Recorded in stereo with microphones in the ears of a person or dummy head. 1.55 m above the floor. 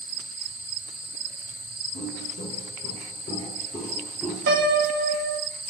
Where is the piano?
55° right (ahead or behind), 1.1 m.